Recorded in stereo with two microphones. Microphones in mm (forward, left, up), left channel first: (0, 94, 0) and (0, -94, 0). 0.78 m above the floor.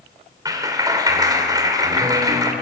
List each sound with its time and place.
0.5 s a clap: 20° right (ahead or behind), 2.5 m